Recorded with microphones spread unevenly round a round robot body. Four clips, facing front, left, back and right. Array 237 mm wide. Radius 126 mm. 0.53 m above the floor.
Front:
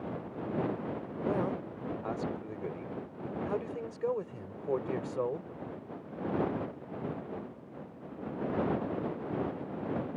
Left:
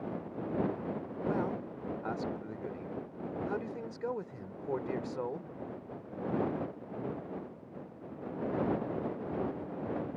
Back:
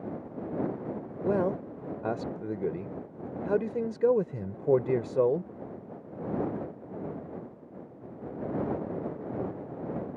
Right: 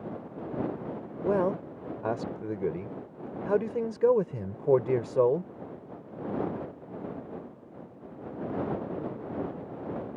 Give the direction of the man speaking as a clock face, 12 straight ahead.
4 o'clock.